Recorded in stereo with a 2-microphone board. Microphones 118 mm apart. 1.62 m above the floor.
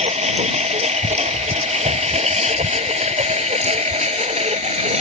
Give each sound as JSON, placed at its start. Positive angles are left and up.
{"t": 0.0, "sound": "a lawn mower", "side_deg": -80}